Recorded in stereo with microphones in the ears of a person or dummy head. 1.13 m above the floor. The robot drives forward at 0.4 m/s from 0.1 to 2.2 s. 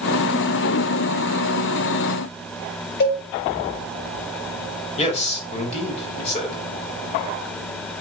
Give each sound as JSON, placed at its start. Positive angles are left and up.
{"t": 3.0, "sound": "a cowbell", "side_deg": 55, "distance_m": 7.0}
{"t": 5.0, "sound": "a man speaking", "side_deg": 35, "distance_m": 5.5}